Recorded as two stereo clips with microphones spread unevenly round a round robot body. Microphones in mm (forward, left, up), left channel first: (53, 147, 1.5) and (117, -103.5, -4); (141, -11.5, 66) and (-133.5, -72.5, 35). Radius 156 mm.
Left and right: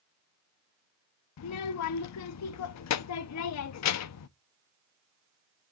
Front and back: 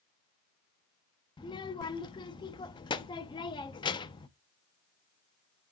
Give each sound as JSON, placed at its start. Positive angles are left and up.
{"t": 1.4, "sound": "a child speaking", "azimuth_deg": 90, "distance_m": 0.5}